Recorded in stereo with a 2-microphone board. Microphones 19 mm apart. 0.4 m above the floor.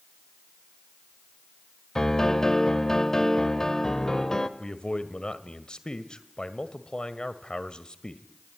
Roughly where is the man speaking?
Left.